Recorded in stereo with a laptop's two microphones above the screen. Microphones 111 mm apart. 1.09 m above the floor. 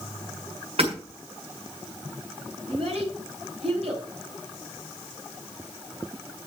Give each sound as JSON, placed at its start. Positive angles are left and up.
{"t": 0.8, "sound": "hammering", "side_deg": -60, "distance_m": 6.5}
{"t": 2.7, "sound": "a child speaking", "side_deg": -70, "distance_m": 5.5}